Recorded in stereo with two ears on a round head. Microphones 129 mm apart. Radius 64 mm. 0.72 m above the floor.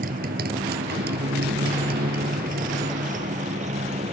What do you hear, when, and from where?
0.0 s a motorcycle: 70° right (ahead or behind); by 4.2 s 50° right (ahead or behind)